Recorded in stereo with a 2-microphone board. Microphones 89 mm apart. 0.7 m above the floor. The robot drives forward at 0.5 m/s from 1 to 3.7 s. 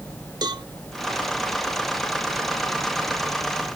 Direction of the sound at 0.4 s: 50° right (ahead or behind).